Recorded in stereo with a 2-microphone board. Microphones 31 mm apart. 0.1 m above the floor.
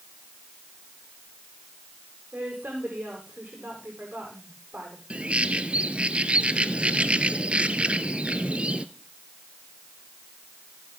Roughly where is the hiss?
I don't hear a hiss.